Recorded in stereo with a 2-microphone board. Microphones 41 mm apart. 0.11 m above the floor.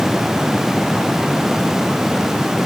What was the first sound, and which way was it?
Only background noise.